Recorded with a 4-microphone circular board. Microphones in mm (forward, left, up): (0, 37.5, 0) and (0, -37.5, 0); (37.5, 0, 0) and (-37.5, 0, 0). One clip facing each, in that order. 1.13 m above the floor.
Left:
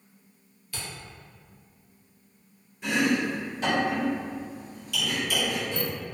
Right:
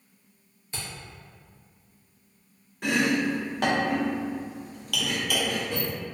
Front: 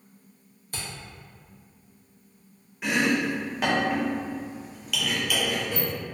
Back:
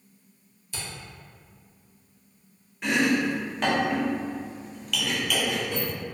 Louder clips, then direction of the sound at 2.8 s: Right 1 dB, back 1 dB; 85° right.